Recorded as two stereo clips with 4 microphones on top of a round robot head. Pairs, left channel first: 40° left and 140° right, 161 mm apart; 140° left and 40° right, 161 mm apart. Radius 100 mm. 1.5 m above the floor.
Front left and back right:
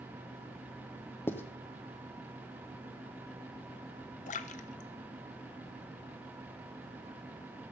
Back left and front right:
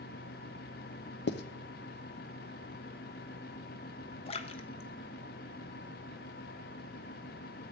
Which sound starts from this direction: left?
A splash, at 4.3 s.